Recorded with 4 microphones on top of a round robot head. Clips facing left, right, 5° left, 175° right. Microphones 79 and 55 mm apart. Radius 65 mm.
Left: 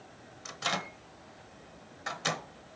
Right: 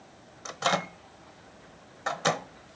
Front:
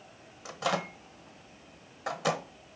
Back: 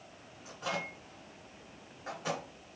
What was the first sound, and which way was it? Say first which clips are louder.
A microwave: right 7 dB, front 6 dB; 40° right.